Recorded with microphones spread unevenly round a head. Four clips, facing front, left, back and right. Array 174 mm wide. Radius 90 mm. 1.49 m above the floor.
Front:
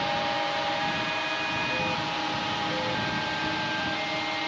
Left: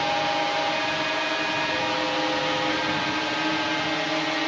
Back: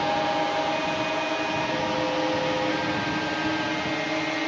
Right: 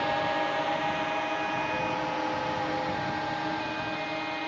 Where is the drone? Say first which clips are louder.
Left 3 dB, back 4 dB; 170° left; by 4.5 s 130° left.